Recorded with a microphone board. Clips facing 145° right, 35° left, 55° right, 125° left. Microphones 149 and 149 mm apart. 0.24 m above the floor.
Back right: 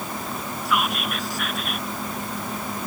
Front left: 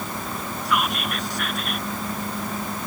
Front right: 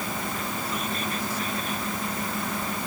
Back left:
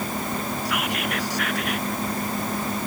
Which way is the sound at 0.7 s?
125° left.